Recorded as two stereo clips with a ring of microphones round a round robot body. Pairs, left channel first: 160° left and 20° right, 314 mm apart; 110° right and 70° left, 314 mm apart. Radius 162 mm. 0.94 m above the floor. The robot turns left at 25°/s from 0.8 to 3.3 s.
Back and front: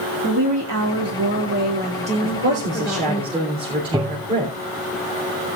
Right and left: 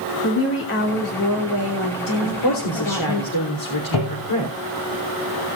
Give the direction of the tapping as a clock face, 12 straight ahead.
3 o'clock.